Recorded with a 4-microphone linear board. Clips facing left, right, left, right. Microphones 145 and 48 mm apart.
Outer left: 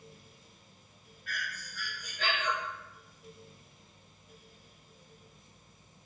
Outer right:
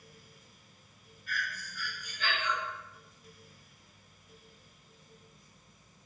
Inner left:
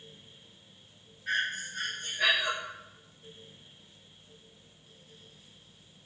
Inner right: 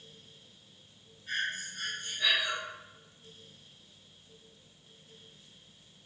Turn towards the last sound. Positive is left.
turn(degrees=80)